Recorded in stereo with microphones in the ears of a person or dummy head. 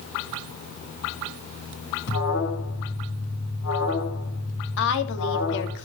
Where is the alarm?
85° left, 8 m.